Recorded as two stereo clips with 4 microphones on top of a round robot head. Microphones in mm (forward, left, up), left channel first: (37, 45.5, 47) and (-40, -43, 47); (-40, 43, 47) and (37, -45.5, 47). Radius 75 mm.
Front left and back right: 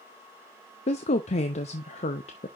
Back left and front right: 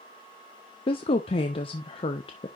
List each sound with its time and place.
0.9 s a woman speaking: 85° left, 0.8 m